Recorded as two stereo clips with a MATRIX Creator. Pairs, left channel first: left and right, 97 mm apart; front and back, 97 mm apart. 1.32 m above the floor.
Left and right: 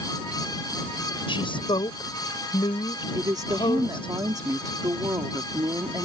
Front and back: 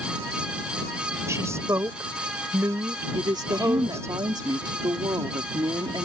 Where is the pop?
I don't hear a pop.